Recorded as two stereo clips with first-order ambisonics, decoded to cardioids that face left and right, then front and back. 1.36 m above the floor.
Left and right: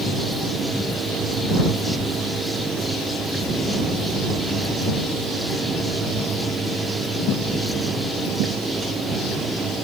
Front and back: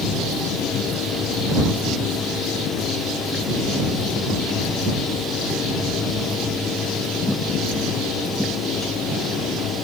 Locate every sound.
Only background noise.